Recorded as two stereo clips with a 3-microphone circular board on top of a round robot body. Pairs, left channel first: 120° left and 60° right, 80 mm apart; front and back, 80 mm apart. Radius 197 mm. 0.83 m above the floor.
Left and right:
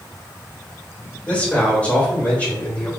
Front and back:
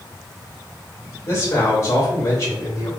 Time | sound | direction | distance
1.3 | a man speaking | 50° left | 3.5 m